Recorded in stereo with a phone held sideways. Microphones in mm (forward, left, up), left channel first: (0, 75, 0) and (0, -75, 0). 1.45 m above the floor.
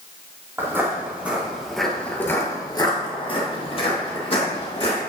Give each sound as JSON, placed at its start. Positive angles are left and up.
{"t": 0.6, "sound": "footsteps", "side_deg": -15, "distance_m": 2.5}